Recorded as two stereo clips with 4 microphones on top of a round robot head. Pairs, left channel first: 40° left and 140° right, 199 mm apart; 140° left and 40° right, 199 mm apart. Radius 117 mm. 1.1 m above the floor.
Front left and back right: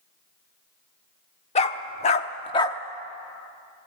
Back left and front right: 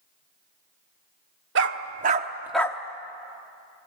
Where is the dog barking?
20° right, 1.0 m; by 2.8 s 105° left, 0.6 m.